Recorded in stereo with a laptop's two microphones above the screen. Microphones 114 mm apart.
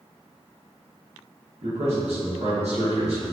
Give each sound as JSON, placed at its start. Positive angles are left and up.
{"t": 1.6, "sound": "a man speaking", "side_deg": -65, "distance_m": 1.2}